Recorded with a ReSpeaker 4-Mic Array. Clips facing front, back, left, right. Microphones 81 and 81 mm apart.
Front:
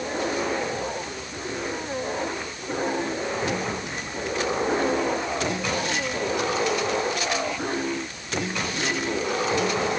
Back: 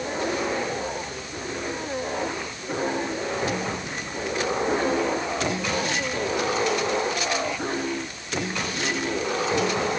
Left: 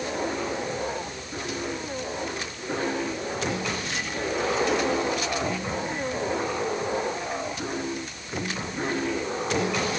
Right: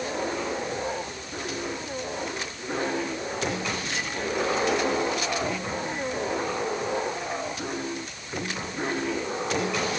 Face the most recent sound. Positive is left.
No sound to turn to.